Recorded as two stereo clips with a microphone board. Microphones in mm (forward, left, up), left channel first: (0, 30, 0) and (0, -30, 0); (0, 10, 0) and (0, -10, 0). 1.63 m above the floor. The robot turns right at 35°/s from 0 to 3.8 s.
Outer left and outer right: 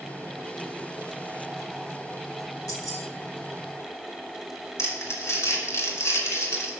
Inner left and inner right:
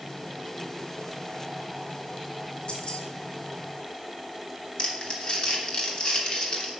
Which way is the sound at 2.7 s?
75° left (ahead or behind).